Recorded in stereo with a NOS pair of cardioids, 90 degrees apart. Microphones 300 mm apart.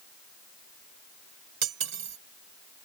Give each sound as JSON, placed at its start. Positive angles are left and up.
{"t": 1.6, "sound": "cutlery clinking", "azimuth_deg": -55}